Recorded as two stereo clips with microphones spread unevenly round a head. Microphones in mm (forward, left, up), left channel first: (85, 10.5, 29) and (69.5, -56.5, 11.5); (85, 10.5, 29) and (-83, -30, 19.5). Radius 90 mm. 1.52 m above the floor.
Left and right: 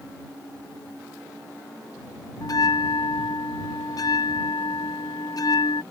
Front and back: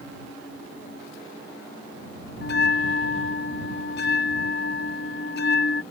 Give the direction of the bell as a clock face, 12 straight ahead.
10 o'clock.